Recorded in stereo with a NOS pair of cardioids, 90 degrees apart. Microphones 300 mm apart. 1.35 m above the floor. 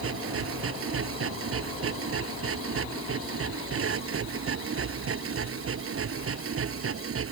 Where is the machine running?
50° right.